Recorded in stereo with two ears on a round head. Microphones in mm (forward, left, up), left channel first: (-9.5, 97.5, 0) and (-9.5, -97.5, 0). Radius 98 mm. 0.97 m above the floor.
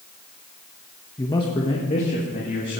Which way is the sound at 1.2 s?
15° left (ahead or behind).